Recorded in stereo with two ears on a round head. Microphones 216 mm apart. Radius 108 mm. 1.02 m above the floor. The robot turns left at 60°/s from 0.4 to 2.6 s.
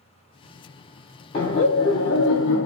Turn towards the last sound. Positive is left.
turn(degrees=70)